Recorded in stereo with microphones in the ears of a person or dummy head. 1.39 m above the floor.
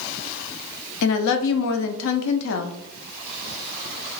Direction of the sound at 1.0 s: 80° left.